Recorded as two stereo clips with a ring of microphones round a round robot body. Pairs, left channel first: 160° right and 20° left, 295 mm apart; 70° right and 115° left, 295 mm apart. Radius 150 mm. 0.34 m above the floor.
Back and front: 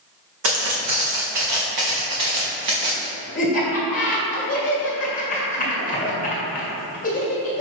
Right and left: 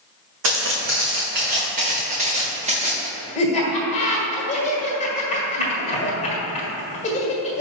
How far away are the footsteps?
About 1.4 m.